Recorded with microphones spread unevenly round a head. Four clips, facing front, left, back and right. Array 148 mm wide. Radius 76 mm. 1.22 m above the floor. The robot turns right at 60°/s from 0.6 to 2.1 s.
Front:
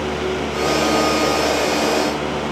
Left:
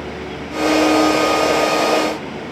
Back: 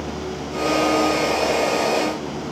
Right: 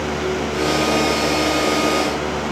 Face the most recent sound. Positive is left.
No sound to turn to.